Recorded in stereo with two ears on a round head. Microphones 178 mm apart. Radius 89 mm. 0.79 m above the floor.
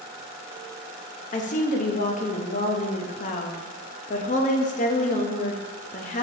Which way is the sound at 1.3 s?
40° left (ahead or behind).